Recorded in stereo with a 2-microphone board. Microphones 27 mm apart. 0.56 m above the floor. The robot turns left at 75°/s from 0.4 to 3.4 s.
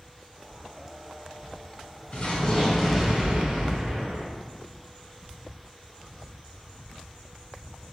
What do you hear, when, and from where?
2.1 s an explosion: 60° left, 1.1 m; by 4.3 s 35° right, 1.1 m